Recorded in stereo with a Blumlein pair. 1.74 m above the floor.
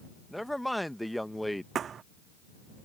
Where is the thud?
25° right.